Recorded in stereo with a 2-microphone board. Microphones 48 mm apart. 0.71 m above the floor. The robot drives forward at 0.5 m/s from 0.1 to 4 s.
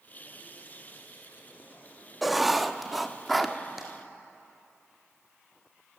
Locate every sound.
2.2 s writing: 5° right (ahead or behind), 1.0 m; by 3.6 s centre (ahead or behind), 1.5 m
3.8 s tapping: 10° right (ahead or behind), 4 m